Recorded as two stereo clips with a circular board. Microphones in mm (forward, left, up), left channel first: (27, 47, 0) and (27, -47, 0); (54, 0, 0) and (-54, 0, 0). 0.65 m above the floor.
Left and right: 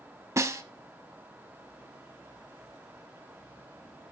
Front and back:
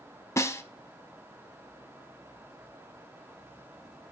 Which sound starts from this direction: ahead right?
A snare drum, at 0.4 s.